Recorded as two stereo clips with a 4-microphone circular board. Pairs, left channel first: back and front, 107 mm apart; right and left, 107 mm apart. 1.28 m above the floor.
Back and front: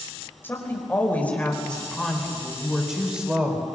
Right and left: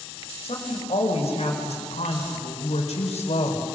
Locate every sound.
0.4 s a woman speaking: 110° right, 5 m; by 3.6 s 75° right, 4 m